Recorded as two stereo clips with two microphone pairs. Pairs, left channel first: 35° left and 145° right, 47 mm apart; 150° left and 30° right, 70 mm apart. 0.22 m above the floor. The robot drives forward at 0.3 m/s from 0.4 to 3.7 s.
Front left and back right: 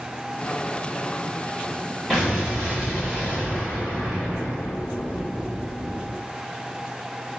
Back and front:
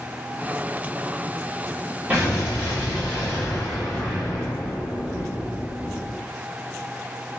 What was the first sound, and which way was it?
An explosion, 70° right.